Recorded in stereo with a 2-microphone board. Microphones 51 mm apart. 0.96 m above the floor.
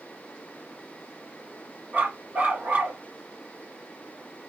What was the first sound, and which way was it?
A dog barking, 30° right (ahead or behind).